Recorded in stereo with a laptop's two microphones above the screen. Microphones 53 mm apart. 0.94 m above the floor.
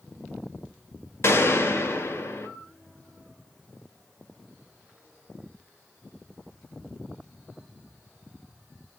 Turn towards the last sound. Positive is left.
turn(degrees=60)  # may be behind; listen again after turning